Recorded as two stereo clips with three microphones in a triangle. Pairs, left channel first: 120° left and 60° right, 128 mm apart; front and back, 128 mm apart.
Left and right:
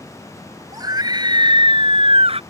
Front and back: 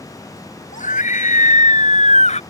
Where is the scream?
Straight ahead; by 2.4 s 25° right.